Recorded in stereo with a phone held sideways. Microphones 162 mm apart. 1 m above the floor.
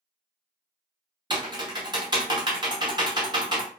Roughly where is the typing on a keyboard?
Right.